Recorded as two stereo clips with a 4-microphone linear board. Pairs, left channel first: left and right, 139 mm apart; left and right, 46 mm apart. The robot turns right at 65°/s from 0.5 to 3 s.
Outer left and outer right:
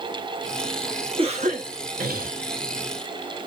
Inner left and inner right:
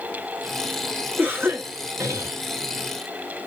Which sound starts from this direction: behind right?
A cough, at 1.2 s.